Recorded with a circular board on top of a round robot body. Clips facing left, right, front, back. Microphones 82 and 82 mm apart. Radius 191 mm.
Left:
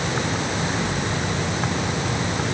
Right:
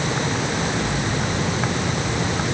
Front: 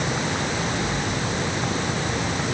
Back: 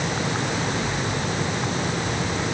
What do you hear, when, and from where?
Only background noise.